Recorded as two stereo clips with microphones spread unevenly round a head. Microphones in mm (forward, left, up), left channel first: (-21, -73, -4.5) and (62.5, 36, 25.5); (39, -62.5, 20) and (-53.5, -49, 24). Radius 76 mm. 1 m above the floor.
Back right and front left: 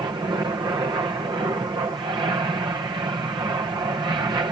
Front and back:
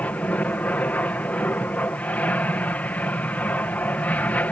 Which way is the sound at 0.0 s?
30° left.